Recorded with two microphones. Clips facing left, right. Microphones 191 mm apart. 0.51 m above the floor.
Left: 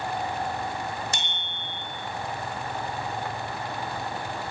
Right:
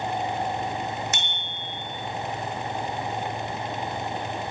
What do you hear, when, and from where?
1.1 s a bicycle bell: 35° left (ahead or behind), 5.5 m